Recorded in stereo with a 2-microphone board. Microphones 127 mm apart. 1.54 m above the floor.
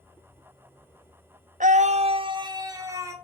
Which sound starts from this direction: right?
A scream, at 1.6 s.